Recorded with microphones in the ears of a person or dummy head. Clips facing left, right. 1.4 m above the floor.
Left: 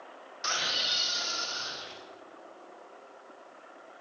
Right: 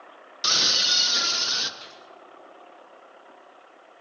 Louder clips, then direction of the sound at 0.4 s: Right 5 dB; 40° right (ahead or behind).